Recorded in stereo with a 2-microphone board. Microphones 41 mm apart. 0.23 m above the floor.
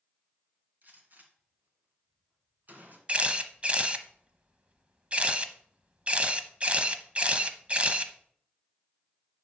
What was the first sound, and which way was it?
A gunshot, 50° right (ahead or behind).